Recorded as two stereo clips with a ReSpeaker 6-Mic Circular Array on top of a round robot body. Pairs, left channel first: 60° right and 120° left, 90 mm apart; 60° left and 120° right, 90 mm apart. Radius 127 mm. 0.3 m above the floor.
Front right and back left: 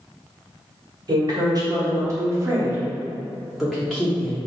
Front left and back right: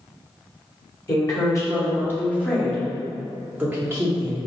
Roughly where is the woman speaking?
Left.